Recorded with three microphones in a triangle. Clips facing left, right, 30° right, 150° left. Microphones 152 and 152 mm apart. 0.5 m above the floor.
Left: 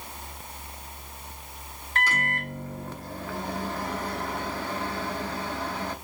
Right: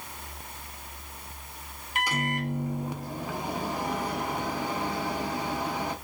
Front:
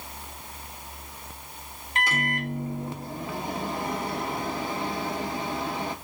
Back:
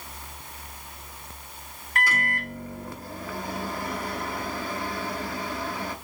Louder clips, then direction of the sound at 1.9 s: Right 1 dB, front 1 dB; 40° right.